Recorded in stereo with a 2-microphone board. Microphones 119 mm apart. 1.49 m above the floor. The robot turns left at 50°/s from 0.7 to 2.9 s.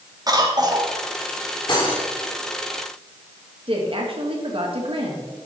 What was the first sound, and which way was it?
A cough, 35° right (ahead or behind).